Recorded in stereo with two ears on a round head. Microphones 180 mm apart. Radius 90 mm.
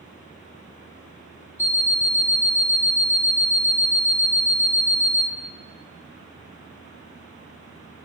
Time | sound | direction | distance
1.6 | an alarm clock | 15° left (ahead or behind) | 0.6 m